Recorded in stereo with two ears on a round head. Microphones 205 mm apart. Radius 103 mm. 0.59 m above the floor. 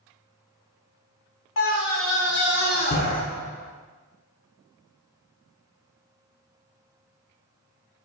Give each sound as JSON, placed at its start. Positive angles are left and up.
{"t": 1.6, "sound": "a scream", "side_deg": 60, "distance_m": 1.8}